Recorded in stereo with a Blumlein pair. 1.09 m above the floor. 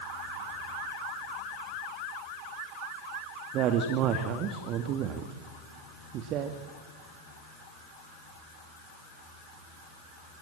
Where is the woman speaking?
35° right, 2 m.